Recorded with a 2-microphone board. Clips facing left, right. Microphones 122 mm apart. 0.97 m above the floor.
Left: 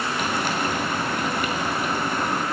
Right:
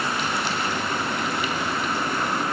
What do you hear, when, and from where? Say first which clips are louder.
0.2 s frying: left 2 dB; 50° left (ahead or behind), 3 m